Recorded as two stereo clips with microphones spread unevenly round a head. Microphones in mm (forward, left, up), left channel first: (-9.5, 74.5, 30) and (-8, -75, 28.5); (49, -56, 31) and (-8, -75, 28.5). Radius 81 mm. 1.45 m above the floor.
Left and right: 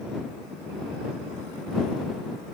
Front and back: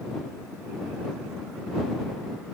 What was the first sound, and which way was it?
Only background noise.